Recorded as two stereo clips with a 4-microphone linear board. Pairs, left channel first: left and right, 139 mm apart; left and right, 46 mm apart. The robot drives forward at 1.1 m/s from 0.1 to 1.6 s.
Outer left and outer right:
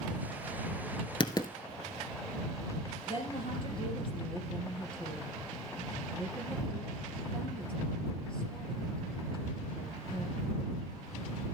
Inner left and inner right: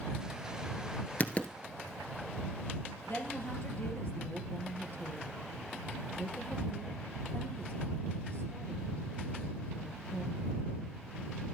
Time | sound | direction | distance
1.2 | writing | 35° left (ahead or behind) | 0.9 m
3.1 | a woman speaking | 40° left (ahead or behind) | 3 m